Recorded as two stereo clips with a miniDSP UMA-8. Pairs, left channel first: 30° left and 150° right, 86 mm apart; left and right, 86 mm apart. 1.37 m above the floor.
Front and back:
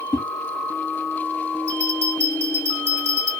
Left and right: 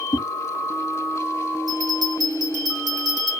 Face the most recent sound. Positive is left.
turn(degrees=-95)